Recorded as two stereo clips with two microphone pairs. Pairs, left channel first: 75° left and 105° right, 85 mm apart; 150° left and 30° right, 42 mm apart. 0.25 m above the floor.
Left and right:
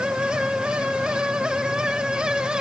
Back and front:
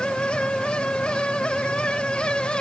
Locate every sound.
Only background noise.